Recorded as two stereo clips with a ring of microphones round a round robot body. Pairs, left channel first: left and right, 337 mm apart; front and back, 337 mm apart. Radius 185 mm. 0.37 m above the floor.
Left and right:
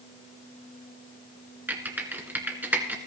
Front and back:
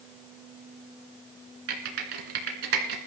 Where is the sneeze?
I don't hear a sneeze.